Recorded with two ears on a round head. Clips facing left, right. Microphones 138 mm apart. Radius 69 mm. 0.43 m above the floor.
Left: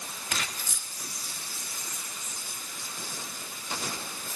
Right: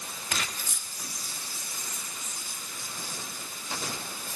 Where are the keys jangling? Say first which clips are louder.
Even; 80° left, 3.5 m.